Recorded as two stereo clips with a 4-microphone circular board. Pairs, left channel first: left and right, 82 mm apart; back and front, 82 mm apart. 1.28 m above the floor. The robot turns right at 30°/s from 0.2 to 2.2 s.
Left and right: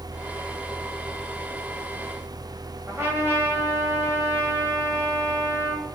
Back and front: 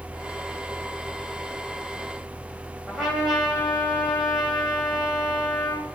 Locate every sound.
2.9 s a trumpet: 90° right, 1.1 m